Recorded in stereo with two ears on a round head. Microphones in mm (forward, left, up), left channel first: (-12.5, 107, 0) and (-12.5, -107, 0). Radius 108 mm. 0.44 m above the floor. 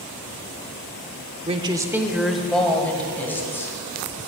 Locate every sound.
1.5 s a woman speaking: 25° right (ahead or behind), 0.7 m; by 3.8 s 10° left (ahead or behind), 2.5 m